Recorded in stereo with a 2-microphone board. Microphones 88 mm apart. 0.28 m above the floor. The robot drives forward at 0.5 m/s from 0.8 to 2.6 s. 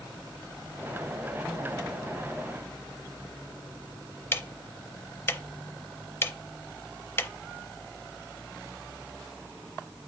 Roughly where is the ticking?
Left.